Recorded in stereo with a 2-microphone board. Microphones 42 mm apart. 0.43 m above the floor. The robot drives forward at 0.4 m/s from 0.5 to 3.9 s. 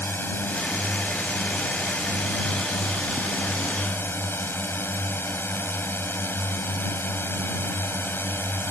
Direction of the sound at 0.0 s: 60° left (ahead or behind).